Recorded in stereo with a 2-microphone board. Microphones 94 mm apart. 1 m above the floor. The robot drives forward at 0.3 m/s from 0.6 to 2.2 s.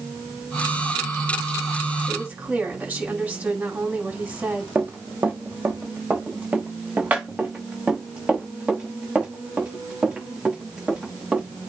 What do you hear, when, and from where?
2.1 s a woman speaking: 15° right (ahead or behind), 5.5 m
4.8 s running footsteps: 25° right (ahead or behind), 3 m; by 11.4 s 10° right (ahead or behind), 7.5 m